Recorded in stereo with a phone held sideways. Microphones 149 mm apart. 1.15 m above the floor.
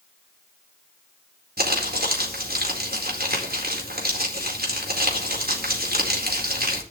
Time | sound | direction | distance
1.6 | crumpling | 80° right | 4 m